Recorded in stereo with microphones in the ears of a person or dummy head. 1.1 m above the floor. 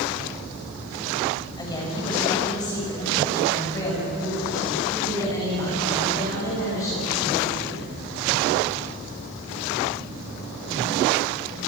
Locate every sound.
1.6 s a woman speaking: 20° left (ahead or behind), 6.5 m; by 7.9 s 15° left (ahead or behind), 14.5 m